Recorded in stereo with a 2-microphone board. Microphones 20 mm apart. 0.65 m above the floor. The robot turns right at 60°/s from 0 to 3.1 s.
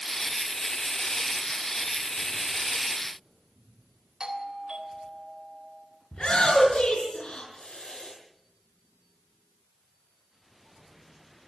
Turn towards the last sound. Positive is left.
turn(degrees=55)  # may be behind; listen again after turning